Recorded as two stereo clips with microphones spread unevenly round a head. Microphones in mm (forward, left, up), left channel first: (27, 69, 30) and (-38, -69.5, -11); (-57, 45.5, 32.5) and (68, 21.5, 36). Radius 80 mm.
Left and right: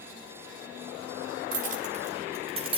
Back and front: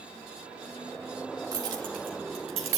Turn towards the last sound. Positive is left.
turn(degrees=-55)